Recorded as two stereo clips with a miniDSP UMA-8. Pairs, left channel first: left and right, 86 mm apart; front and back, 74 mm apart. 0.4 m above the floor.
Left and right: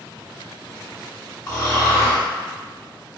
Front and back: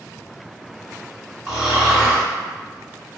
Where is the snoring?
100° left, 1.5 m.